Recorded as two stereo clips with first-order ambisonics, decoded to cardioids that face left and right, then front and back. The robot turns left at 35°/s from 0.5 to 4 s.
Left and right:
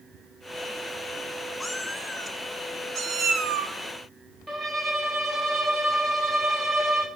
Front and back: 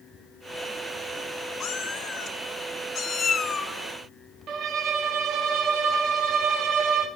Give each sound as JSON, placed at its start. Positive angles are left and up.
{"t": 1.6, "sound": "a cat meowing", "azimuth_deg": 10, "distance_m": 0.6}
{"t": 4.5, "sound": "a violin", "azimuth_deg": -165, "distance_m": 0.8}